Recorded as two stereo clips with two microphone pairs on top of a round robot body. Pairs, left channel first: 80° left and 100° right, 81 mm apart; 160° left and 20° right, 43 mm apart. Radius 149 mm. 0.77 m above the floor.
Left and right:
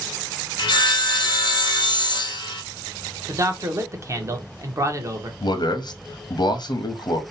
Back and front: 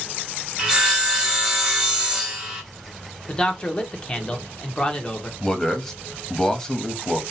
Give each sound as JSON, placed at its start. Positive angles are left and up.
{"t": 0.6, "sound": "sawing", "azimuth_deg": 55, "distance_m": 0.8}
{"t": 3.3, "sound": "a man speaking", "azimuth_deg": -135, "distance_m": 0.8}
{"t": 5.4, "sound": "a man speaking", "azimuth_deg": 80, "distance_m": 0.8}